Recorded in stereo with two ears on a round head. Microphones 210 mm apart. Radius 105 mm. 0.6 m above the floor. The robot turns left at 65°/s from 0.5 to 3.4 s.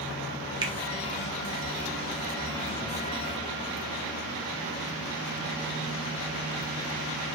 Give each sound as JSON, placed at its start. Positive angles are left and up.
{"t": 0.6, "sound": "a finger snap", "side_deg": -20, "distance_m": 0.5}